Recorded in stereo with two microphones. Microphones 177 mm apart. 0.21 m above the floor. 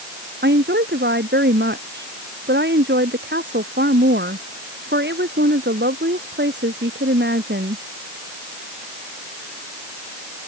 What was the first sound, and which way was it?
A woman speaking, 80° right.